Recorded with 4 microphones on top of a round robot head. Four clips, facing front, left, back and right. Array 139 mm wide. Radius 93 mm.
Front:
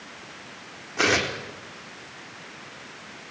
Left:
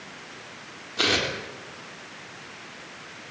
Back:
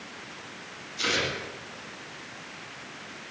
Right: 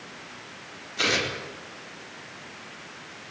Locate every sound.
1.0 s tearing paper: 25° left, 4 m